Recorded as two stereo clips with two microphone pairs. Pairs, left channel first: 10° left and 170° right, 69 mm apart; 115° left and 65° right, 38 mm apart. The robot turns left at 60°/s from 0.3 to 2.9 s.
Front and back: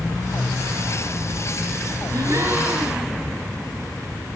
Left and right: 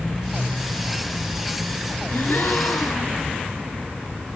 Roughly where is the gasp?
Behind left.